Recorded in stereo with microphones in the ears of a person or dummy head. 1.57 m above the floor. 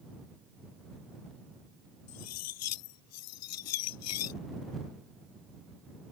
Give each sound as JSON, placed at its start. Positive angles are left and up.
{"t": 2.1, "sound": "cutlery clinking", "side_deg": 85}